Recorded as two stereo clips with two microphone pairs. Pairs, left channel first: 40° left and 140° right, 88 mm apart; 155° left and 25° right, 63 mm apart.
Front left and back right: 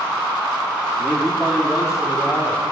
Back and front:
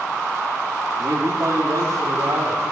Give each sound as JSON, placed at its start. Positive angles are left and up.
{"t": 1.0, "sound": "a man speaking", "azimuth_deg": -45, "distance_m": 3.0}